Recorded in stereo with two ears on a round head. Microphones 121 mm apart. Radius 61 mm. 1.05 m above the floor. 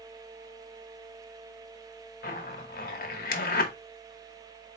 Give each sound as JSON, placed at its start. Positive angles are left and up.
{"t": 2.2, "sound": "a zipper", "side_deg": 75, "distance_m": 0.9}